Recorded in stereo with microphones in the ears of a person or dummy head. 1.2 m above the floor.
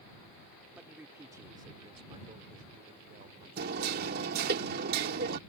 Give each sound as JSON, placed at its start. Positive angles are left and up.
{"t": 0.8, "sound": "a man speaking", "side_deg": -5}
{"t": 3.6, "sound": "hammering", "side_deg": -55}